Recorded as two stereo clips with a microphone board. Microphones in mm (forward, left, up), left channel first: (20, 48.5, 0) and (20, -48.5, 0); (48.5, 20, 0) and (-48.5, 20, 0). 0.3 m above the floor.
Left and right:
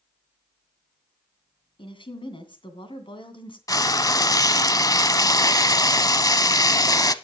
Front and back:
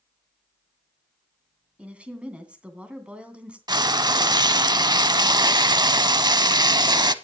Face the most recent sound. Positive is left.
turn(degrees=140)